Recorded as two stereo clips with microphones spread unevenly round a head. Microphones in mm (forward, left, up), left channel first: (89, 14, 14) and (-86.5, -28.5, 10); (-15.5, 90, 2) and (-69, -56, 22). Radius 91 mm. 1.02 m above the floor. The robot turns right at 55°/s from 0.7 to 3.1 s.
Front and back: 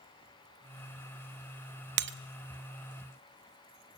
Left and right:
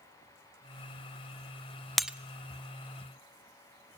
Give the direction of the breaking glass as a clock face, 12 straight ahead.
7 o'clock.